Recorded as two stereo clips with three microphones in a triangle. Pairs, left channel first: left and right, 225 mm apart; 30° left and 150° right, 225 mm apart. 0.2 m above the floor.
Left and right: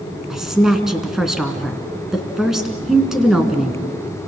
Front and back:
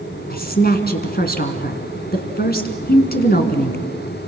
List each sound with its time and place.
0.3 s a woman speaking: 5° right, 2.5 m